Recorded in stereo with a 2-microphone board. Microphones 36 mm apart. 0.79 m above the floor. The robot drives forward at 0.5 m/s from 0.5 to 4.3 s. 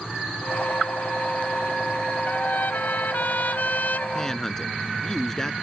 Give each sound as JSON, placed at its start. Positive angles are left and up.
{"t": 2.3, "sound": "a trumpet", "side_deg": 55}
{"t": 4.2, "sound": "a man speaking", "side_deg": 15}